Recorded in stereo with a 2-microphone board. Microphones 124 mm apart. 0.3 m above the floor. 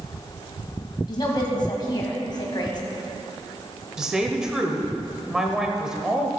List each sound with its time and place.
1.1 s a woman speaking: 40° left (ahead or behind), 1.9 m
4.0 s a woman speaking: 5° right (ahead or behind), 0.9 m